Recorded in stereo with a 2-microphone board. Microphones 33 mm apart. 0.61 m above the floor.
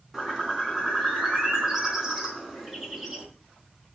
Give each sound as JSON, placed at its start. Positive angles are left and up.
{"t": 0.1, "sound": "a bird", "side_deg": -10, "distance_m": 4.0}